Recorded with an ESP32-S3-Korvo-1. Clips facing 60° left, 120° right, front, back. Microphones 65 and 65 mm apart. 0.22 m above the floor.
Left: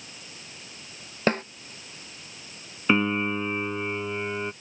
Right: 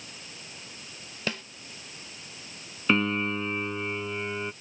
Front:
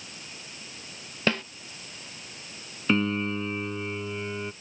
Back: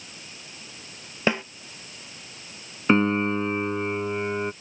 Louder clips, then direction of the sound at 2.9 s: Left 2 dB, back 5 dB; 135° left.